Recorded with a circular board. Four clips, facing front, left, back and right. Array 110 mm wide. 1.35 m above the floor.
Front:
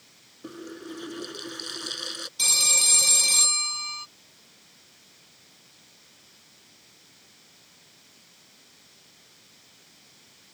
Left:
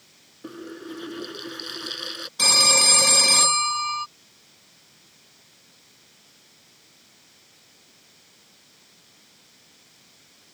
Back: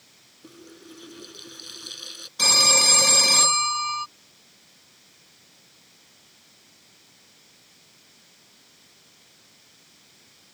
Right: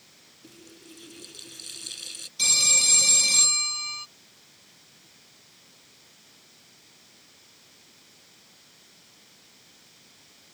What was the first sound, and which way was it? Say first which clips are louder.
A running tap: left 14 dB, front 7 dB; 60° left.